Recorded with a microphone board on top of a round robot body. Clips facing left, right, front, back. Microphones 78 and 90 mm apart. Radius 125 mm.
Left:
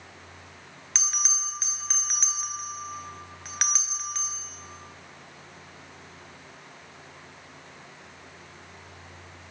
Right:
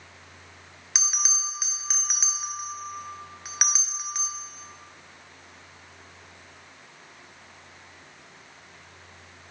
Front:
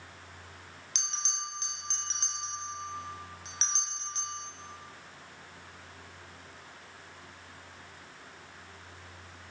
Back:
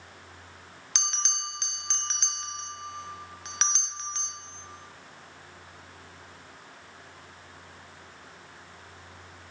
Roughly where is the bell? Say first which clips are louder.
Right 1 dB, back 5 dB; behind.